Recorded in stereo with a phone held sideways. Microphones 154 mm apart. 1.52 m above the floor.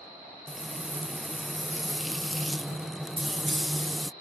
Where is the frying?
Centre (ahead or behind).